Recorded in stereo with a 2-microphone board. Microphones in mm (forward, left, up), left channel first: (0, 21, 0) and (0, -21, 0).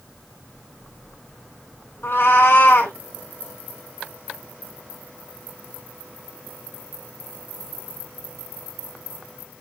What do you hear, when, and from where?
2.0 s a cat meowing: 75° left (ahead or behind), 2.0 m